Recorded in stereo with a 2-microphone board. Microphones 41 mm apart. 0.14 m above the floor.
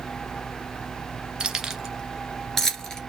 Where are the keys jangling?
20° right (ahead or behind), 1.4 m; by 3.1 s 15° left (ahead or behind), 1.9 m.